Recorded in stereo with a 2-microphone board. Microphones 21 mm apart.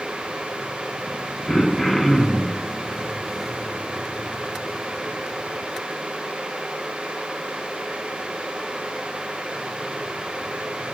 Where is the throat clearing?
10° left (ahead or behind), 1.0 m.